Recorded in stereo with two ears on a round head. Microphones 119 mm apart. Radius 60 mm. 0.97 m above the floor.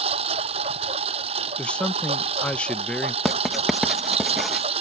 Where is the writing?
Centre (ahead or behind).